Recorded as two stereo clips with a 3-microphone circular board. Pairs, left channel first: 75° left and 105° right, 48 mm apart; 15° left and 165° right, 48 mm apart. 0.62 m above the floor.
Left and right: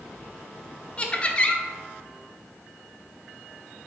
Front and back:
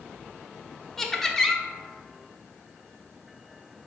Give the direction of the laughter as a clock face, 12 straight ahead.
9 o'clock.